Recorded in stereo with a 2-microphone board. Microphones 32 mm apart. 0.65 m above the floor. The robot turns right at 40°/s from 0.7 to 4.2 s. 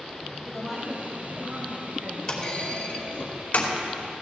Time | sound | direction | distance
0.5 | a woman speaking | straight behind | 4 m
2.3 | a clunk | 20° left (ahead or behind) | 2.5 m